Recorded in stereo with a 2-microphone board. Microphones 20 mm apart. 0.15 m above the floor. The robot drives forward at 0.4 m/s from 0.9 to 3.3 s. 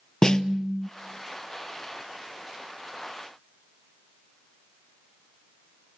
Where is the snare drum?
30° left (ahead or behind), 0.6 m.